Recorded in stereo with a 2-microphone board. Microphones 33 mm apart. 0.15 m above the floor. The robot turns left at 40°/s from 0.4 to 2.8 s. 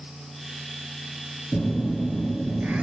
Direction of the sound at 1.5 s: 15° right.